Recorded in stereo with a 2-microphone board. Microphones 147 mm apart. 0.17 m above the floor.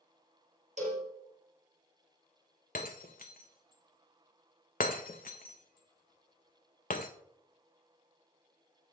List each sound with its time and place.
0.8 s a cowbell: 50° right (ahead or behind), 2.5 m
2.8 s breaking glass: 70° left (ahead or behind), 0.8 m